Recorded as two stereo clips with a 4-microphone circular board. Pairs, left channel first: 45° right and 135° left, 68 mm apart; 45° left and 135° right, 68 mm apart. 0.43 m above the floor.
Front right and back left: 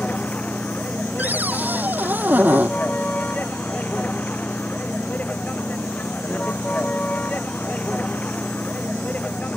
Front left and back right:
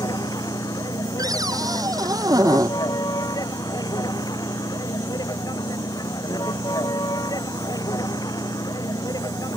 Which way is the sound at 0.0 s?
25° left.